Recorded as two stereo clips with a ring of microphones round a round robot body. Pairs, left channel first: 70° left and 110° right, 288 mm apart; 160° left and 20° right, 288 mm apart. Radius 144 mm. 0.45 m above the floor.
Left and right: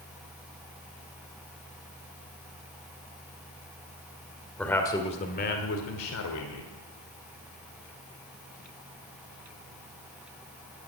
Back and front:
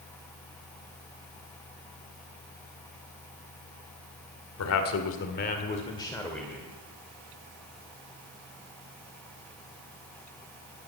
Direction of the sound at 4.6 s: 155° left.